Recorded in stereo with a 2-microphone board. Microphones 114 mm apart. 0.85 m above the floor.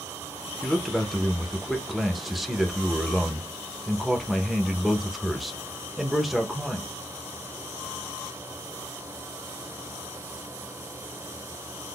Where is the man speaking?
Centre (ahead or behind), 0.7 m.